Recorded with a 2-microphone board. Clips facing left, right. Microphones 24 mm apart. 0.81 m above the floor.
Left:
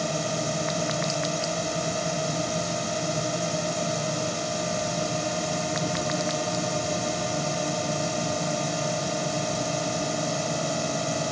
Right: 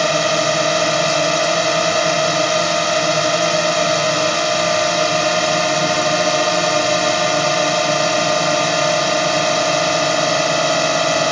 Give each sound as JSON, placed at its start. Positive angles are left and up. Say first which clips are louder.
{"t": 0.0, "sound": "a drone", "louder": "right 12 dB", "side_deg": -50}